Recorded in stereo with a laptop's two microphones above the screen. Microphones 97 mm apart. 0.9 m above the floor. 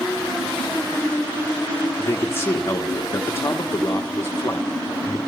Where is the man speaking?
25° left (ahead or behind), 1.2 m.